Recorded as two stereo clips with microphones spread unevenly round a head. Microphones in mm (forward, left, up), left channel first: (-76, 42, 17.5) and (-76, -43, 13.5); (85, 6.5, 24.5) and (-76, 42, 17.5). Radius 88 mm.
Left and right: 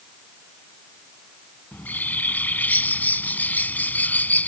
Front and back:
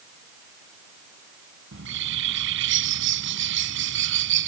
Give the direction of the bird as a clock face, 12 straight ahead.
7 o'clock.